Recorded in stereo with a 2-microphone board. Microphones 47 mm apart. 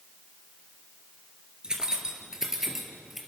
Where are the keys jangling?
20° right (ahead or behind), 2.5 m; by 3.2 s 5° right (ahead or behind), 3 m.